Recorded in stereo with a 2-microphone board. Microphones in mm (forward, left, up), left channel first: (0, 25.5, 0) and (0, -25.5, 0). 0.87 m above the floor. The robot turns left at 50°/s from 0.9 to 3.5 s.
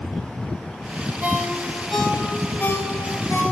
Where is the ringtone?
35° right (ahead or behind), 2 m; by 3.4 s 75° left (ahead or behind), 2 m.